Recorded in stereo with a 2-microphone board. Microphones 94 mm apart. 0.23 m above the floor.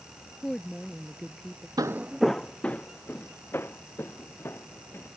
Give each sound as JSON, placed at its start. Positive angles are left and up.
{"t": 0.4, "sound": "a woman speaking", "side_deg": 5}
{"t": 1.8, "sound": "footsteps", "side_deg": -45}